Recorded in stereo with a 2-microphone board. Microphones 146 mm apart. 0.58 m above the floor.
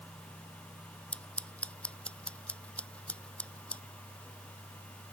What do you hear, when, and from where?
1.1 s scissors: 10° left (ahead or behind)